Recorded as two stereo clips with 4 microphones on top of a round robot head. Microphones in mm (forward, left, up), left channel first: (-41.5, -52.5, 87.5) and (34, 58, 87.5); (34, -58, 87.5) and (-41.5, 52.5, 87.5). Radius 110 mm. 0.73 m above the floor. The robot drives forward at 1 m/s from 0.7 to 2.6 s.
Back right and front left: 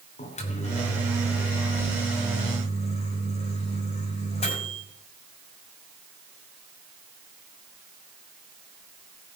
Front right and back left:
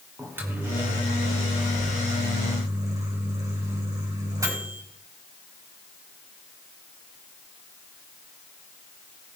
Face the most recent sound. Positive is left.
turn(degrees=-170)